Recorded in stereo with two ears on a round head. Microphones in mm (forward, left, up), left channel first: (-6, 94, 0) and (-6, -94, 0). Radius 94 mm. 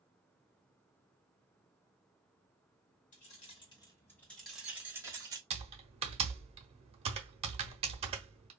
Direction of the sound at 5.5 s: 30° right (ahead or behind).